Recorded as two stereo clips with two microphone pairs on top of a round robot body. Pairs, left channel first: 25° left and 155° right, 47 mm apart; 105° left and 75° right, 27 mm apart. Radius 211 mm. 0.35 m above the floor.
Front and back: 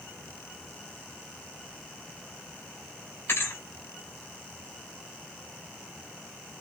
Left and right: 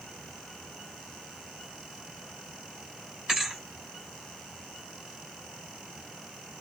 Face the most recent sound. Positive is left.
turn(degrees=-5)